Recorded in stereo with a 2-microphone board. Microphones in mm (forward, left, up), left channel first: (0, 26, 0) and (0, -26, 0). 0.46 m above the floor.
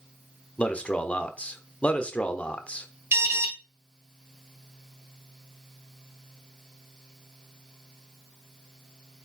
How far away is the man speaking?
About 1.1 m.